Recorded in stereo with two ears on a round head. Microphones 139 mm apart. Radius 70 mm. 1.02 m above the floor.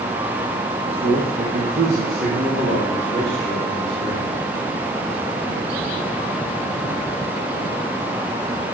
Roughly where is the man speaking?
Right.